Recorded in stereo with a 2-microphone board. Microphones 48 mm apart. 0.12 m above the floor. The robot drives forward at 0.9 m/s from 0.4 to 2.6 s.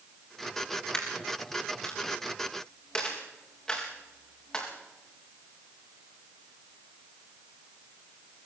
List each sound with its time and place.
0.9 s a dropped coin: 15° left (ahead or behind), 6.5 m; by 4.7 s 20° left (ahead or behind), 5 m